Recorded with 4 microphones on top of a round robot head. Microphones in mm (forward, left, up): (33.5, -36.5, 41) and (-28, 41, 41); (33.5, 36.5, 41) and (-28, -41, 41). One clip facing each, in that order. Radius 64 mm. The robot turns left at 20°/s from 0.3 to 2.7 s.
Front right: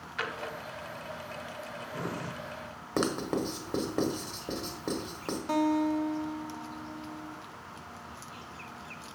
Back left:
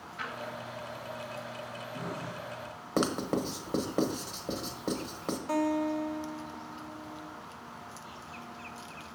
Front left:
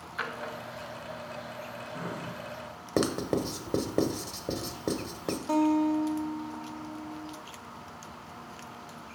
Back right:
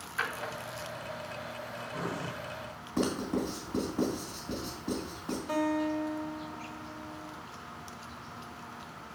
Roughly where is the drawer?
Ahead right.